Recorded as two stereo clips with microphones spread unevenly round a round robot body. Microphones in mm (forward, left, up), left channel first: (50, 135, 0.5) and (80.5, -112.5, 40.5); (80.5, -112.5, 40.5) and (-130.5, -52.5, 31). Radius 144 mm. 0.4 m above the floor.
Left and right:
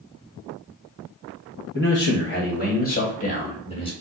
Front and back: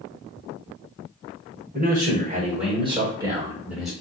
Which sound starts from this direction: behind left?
A man speaking, at 1.7 s.